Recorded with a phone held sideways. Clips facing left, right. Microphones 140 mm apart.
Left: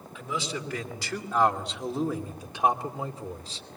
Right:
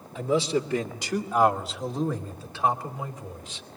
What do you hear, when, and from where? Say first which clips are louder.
0.1 s a man speaking: right 9 dB; 35° right (ahead or behind), 2.5 m; by 3.7 s 40° left (ahead or behind), 2.5 m